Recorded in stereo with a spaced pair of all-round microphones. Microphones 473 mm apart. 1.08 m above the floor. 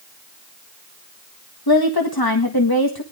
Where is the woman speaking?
50° left (ahead or behind), 1.7 m.